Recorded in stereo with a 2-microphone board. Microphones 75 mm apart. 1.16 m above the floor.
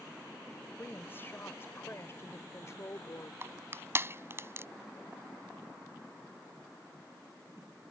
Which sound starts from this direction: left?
A woman speaking, at 0.8 s.